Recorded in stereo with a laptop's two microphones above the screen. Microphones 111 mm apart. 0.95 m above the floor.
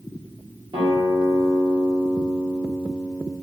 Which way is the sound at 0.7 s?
50° right (ahead or behind).